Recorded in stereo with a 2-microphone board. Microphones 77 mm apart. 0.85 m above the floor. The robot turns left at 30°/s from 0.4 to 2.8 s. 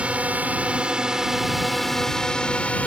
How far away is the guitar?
I don't hear a guitar.